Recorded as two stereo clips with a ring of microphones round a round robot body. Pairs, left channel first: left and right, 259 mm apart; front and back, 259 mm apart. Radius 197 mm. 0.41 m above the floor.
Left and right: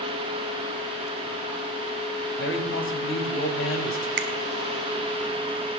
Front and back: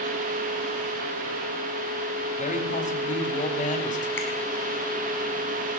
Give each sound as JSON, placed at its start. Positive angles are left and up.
{"t": 2.4, "sound": "a man speaking", "azimuth_deg": 60, "distance_m": 3.5}
{"t": 4.2, "sound": "a finger snap", "azimuth_deg": -80, "distance_m": 1.3}